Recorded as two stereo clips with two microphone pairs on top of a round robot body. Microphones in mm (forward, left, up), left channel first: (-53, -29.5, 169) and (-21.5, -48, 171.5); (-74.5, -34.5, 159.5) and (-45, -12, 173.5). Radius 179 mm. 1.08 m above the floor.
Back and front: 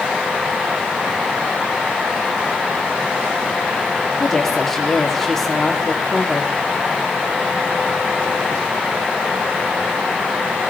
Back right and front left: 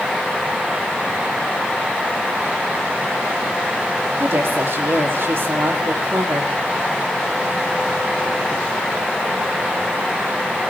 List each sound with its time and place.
4.2 s a woman speaking: 70° left, 3 m